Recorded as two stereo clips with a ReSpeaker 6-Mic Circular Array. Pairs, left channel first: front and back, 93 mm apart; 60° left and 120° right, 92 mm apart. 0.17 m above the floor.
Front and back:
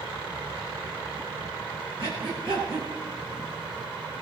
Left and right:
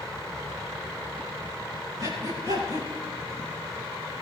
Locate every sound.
2.0 s breathing: 170° right, 8 m